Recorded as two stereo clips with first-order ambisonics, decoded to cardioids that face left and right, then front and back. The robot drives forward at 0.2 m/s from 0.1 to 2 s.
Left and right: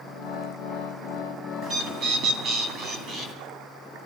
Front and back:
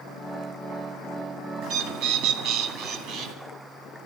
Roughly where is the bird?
Behind right.